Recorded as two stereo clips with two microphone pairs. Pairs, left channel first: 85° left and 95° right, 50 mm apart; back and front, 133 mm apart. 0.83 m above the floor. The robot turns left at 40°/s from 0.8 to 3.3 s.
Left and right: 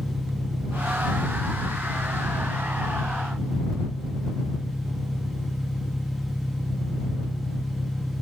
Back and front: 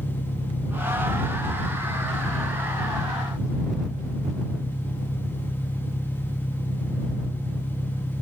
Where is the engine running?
145° right; by 8.2 s 115° left.